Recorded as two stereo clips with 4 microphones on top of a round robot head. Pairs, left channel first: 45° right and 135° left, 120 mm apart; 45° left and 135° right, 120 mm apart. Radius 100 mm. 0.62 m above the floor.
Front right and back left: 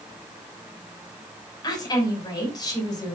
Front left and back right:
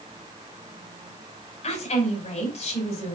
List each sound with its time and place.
1.6 s a woman speaking: 15° left, 5 m